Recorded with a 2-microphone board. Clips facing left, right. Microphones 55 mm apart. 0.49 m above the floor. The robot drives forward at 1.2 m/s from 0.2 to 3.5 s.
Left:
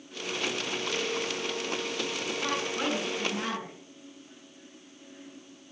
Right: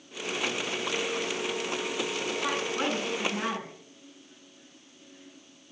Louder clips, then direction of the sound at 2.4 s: Even; 20° right (ahead or behind).